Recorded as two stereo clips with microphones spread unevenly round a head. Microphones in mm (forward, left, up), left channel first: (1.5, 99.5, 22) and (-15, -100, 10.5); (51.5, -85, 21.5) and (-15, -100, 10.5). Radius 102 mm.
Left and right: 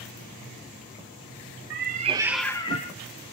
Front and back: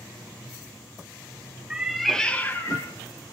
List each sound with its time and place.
1.7 s a cat meowing: 85° right, 0.6 m; by 2.9 s 45° left, 0.7 m